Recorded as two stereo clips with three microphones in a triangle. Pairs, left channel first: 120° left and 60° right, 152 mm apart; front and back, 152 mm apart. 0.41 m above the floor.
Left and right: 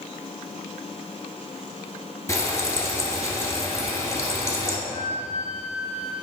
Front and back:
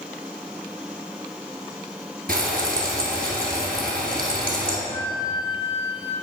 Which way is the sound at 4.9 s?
55° right.